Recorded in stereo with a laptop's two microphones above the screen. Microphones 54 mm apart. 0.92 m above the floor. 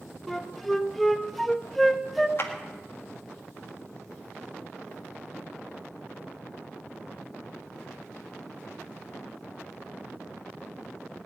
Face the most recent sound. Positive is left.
turn(degrees=50)  # may be behind; listen again after turning